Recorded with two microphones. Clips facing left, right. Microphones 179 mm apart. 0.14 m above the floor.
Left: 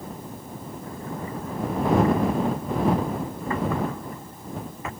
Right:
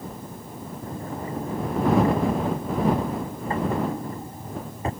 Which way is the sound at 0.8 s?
35° right (ahead or behind).